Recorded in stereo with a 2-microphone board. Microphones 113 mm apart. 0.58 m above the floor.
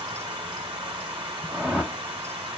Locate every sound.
0.0 s running water: 45° right (ahead or behind), 1.9 m
1.5 s a whoosh: 10° right (ahead or behind), 1.0 m